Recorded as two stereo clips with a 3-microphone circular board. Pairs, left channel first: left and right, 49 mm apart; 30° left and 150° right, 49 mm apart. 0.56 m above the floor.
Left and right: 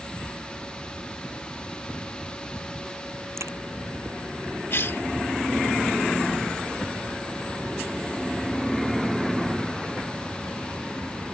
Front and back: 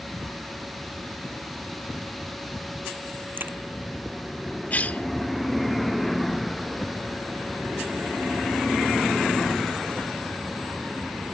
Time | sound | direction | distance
3.4 | a crack | 105° right | ?
4.7 | a cough | 75° left | ?